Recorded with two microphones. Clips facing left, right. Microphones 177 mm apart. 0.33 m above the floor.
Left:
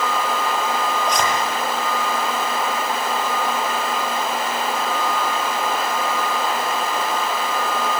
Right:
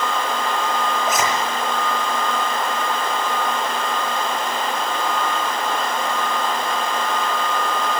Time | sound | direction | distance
1.1 | a zipper | 5° right (ahead or behind) | 7.5 m